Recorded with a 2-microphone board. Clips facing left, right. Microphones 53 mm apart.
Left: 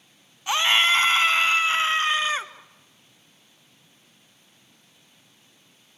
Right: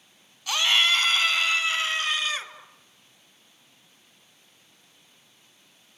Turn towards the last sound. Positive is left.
turn(degrees=30)  # may be behind; listen again after turning